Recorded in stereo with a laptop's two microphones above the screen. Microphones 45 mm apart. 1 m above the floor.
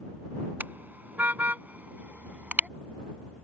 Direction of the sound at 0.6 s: 45° right (ahead or behind).